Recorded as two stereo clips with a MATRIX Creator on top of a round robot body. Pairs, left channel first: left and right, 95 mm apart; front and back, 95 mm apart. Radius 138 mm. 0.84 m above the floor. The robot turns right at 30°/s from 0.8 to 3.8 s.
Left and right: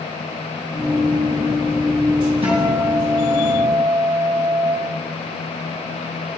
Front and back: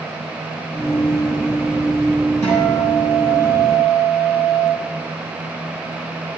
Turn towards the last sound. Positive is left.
turn(degrees=-20)